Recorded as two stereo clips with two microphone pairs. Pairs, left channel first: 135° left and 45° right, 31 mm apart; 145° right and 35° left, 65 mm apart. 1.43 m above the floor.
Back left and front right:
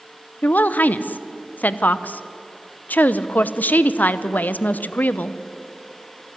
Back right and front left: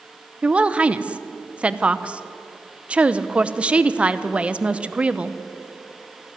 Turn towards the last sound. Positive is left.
turn(degrees=110)